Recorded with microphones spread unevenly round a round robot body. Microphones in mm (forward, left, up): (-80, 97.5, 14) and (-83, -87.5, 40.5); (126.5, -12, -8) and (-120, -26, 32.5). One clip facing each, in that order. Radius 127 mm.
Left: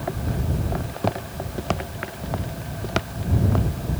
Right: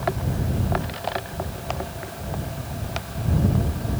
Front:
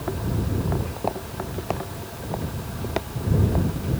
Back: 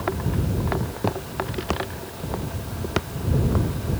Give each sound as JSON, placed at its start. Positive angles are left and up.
{"t": 0.8, "sound": "footsteps", "azimuth_deg": 120}